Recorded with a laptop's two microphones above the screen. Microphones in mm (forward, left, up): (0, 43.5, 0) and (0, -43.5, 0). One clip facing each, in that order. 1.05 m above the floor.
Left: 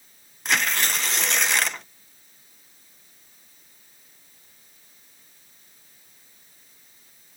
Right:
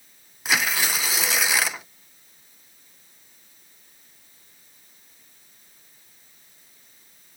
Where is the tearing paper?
5° right (ahead or behind).